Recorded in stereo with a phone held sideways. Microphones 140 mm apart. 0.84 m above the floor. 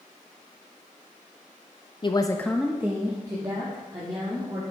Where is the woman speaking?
35° left (ahead or behind), 0.6 m; by 4.6 s 30° right (ahead or behind), 2.5 m.